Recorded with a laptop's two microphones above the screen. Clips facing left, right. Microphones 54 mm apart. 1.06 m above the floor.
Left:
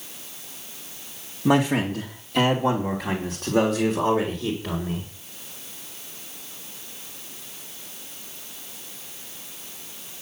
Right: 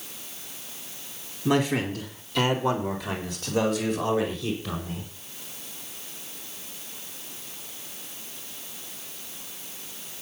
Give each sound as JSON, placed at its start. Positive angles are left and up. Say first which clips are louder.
{"t": 1.4, "sound": "a man speaking", "louder": "left 3 dB", "side_deg": 70, "distance_m": 2.0}